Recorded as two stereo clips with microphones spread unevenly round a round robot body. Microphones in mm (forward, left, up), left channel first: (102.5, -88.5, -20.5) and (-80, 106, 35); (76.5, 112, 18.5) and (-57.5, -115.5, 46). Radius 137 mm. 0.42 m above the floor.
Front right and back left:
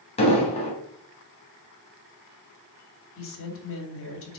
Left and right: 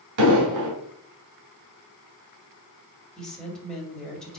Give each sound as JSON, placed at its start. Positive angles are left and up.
{"t": 0.2, "sound": "an explosion", "azimuth_deg": -110, "distance_m": 2.5}
{"t": 3.2, "sound": "a woman speaking", "azimuth_deg": -25, "distance_m": 2.5}